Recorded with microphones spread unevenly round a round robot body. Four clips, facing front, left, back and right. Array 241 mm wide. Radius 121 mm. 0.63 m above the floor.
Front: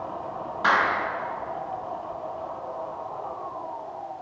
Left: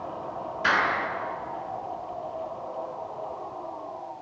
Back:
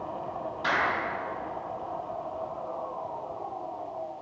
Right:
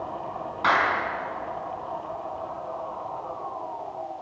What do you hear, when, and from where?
0.6 s a clap: 45° right, 5.5 m